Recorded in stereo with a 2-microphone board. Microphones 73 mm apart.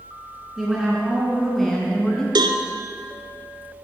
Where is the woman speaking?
5° right (ahead or behind), 3 m; by 2.2 s 10° left (ahead or behind), 2.5 m.